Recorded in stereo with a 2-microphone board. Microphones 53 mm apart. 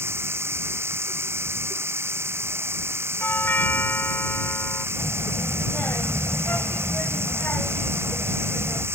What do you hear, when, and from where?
0.0 s running water: 50° right (ahead or behind)
3.2 s a doorbell: 40° left (ahead or behind)
5.0 s a child speaking: 40° left (ahead or behind)